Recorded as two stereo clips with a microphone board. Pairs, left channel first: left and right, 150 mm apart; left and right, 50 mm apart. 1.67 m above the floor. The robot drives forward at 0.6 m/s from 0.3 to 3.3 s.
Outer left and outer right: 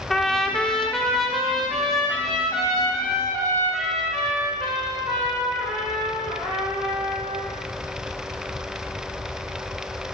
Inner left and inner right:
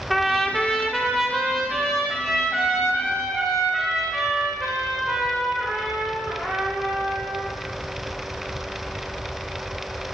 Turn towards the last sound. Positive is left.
turn(degrees=0)  # may be behind; listen again after turning